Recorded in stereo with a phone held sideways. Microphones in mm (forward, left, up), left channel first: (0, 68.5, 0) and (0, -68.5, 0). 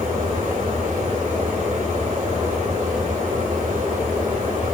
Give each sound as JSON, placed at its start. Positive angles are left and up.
{"t": 0.0, "sound": "a fan", "side_deg": -90, "distance_m": 1.8}